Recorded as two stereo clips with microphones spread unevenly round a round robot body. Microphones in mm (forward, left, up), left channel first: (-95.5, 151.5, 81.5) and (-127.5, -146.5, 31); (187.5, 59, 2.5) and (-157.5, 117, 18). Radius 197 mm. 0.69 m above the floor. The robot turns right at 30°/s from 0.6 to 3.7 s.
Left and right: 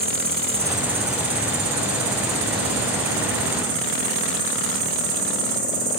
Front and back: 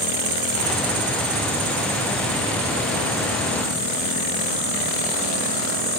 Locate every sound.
0.0 s an insect: 170° right, 1.3 m; by 6.0 s 80° right, 1.3 m